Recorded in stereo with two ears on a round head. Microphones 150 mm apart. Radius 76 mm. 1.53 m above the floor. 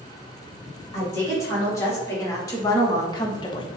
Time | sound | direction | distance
0.9 | a woman speaking | 15° left (ahead or behind) | 2.0 m